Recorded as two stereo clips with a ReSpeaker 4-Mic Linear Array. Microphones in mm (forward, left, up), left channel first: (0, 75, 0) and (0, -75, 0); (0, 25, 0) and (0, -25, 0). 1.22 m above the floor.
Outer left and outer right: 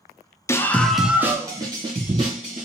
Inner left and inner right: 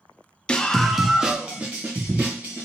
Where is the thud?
I don't hear a thud.